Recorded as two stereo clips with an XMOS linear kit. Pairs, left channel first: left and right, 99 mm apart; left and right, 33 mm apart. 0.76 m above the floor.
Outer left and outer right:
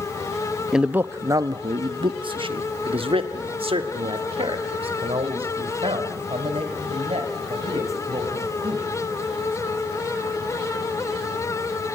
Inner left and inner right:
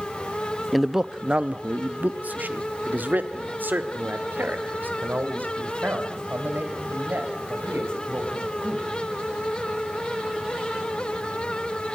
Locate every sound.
0.7 s a man speaking: 5° right (ahead or behind), 0.6 m; by 8.9 s 85° right, 4.5 m